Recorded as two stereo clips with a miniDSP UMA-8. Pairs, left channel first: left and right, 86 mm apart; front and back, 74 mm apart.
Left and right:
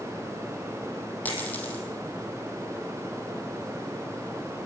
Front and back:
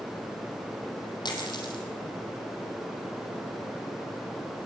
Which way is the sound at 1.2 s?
20° left.